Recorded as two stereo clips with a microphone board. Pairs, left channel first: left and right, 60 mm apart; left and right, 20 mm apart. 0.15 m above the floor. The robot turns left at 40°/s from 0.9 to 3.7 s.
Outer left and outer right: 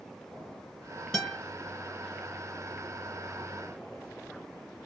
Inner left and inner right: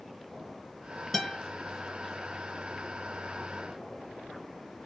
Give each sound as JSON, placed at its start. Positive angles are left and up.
{"t": 1.1, "sound": "a guitar", "side_deg": 5, "distance_m": 2.0}